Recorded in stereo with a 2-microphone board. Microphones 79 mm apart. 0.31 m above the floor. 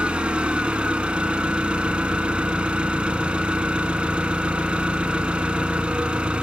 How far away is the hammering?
I don't hear hammering.